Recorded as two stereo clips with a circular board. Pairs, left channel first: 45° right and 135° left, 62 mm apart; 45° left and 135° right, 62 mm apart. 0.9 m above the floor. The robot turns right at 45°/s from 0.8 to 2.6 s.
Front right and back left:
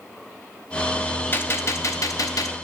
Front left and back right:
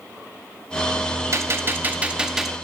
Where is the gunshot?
100° right, 0.5 m; by 2.5 s 45° right, 0.5 m.